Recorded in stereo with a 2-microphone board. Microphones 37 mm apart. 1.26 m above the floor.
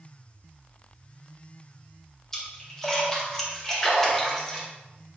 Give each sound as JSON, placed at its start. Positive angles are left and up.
{"t": 2.3, "sound": "a splash", "side_deg": 15, "distance_m": 1.7}